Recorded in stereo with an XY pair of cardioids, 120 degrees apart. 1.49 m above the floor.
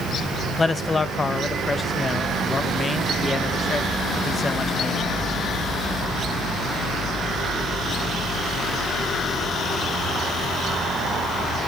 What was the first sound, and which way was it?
A man speaking, 25° left.